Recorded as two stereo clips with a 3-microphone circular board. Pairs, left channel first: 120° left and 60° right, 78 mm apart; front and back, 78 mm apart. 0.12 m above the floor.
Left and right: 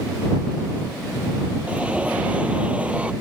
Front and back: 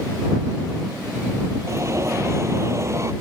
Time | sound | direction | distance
1.7 | an alarm | 135° right | ?